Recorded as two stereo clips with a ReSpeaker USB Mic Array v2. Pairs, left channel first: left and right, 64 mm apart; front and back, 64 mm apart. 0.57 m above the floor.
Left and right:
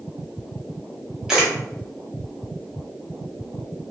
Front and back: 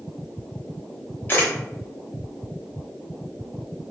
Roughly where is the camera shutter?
Ahead.